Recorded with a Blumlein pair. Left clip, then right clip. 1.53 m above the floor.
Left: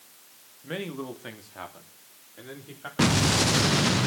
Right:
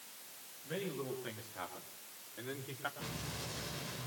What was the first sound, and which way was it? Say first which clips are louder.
A man speaking: left 6 dB; 35° left.